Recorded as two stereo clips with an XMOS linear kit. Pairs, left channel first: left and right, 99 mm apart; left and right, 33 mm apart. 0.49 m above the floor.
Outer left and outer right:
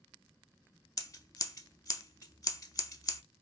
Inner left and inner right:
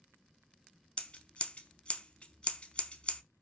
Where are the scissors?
40° left (ahead or behind), 0.5 m.